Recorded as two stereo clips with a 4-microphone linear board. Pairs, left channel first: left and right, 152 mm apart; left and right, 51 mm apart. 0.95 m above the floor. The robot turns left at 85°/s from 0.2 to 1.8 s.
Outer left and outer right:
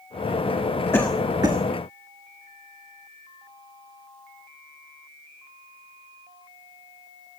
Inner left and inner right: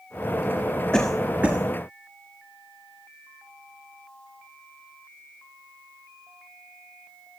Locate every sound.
0.9 s a cough: 15° left (ahead or behind), 1.5 m; by 1.6 s 40° right (ahead or behind), 1.5 m